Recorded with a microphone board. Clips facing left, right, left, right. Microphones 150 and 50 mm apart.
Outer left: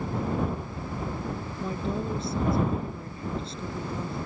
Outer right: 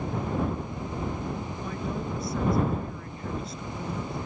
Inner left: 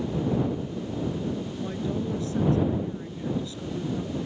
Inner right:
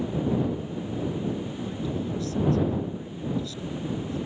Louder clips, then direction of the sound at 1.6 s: Outer left 5 dB, inner left 1 dB; 25° left (ahead or behind).